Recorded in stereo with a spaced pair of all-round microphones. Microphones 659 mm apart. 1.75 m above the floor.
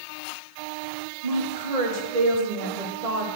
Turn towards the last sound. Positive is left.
turn(degrees=-65)  # may be behind; listen again after turning